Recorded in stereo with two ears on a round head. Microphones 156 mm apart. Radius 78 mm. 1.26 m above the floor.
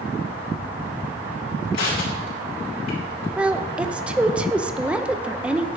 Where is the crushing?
75° left (ahead or behind), 3.5 m.